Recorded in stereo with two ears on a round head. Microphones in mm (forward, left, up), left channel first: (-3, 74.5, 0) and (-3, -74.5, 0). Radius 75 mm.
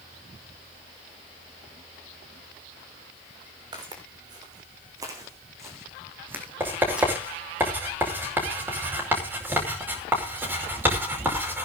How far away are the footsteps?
About 6 m.